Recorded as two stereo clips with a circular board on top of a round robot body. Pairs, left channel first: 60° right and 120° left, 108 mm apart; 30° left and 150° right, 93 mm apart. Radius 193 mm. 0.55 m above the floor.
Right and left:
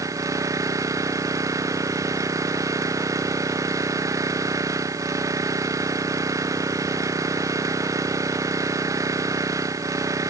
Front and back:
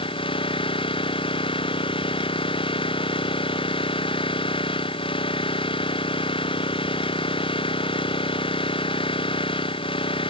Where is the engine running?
60° left.